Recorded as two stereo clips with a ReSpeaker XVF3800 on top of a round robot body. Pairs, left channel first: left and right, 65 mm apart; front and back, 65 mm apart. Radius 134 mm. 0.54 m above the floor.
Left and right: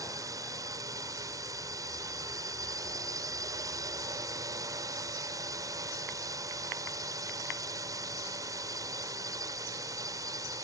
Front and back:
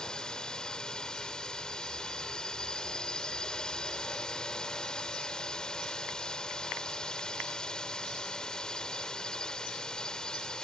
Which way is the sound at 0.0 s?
75° right.